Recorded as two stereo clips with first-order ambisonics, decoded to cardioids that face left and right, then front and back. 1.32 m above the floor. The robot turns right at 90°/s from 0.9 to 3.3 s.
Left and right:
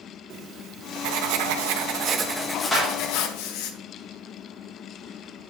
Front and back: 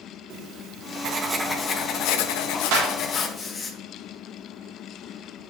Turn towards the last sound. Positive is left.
turn(degrees=-130)